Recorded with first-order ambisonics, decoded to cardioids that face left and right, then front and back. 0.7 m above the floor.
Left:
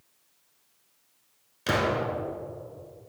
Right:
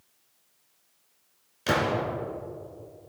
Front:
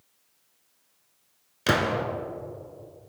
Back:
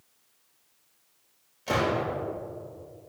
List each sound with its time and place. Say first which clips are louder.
1.7 s a gunshot: even, front 2 dB; straight ahead, 1.6 m